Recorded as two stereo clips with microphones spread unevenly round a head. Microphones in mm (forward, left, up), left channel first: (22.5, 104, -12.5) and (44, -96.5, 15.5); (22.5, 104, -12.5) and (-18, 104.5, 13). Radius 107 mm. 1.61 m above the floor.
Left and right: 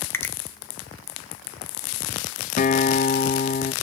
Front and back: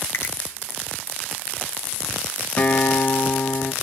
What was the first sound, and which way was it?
A finger snap, 15° left.